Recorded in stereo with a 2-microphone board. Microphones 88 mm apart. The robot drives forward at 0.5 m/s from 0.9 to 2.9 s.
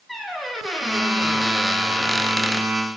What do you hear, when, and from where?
0.1 s a squeak: centre (ahead or behind), 0.8 m; by 2.7 s 5° left (ahead or behind), 0.6 m